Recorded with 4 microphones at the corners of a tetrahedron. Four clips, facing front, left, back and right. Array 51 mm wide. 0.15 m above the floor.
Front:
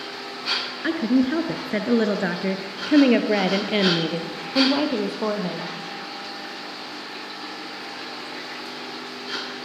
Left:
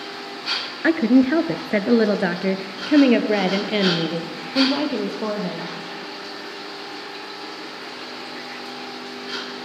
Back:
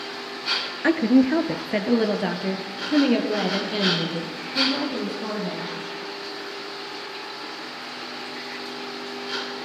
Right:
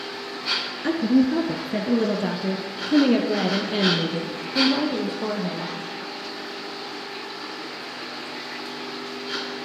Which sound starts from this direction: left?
A woman speaking, at 0.8 s.